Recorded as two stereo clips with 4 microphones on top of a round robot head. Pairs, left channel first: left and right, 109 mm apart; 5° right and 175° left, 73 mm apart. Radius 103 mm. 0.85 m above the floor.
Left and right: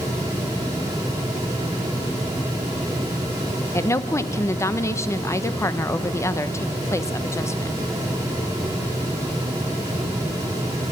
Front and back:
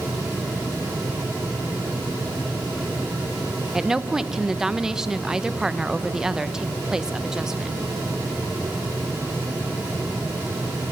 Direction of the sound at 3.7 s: 105° left.